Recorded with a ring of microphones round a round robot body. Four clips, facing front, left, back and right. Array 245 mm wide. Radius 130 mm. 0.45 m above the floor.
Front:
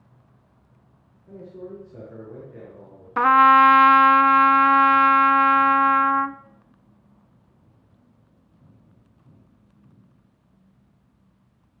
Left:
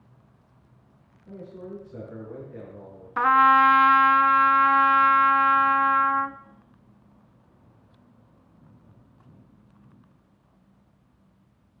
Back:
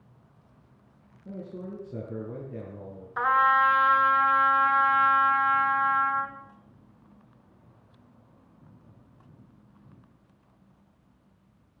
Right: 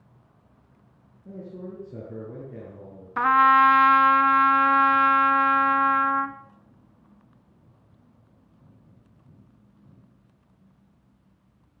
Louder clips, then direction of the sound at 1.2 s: Right 1 dB, front 1 dB; 145° right.